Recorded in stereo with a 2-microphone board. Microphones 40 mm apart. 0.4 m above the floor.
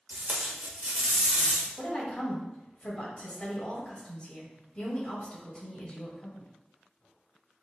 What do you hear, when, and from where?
0.1 s tape being pulled: 40° right (ahead or behind), 1.0 m
1.8 s a woman speaking: 30° left (ahead or behind), 1.8 m